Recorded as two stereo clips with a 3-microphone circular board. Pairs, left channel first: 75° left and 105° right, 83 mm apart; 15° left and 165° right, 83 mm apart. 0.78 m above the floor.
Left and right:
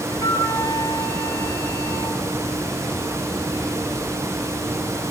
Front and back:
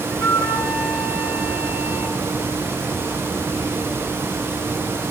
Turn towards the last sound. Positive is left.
turn(degrees=125)